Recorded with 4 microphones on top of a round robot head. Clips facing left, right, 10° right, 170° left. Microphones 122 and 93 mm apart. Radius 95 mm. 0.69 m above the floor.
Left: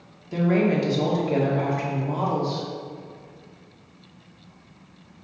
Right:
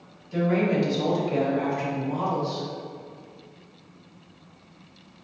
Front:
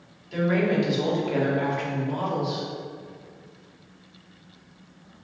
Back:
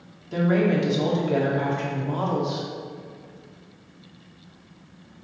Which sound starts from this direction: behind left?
A woman speaking, at 0.3 s.